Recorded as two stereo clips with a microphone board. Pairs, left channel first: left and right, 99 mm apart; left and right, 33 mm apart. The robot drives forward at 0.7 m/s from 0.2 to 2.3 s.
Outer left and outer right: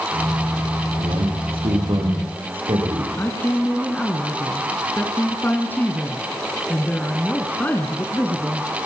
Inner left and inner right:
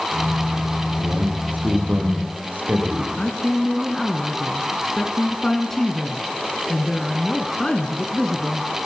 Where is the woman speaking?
20° left (ahead or behind), 1.7 m.